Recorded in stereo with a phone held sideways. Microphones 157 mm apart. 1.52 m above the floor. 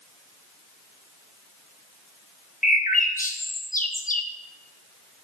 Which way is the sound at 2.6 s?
60° left (ahead or behind).